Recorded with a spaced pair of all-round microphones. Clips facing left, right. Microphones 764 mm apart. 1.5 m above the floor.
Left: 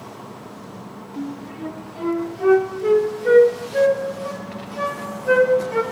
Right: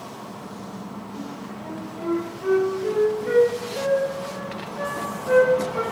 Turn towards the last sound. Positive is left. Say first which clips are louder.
# left 9 dB
turn(degrees=80)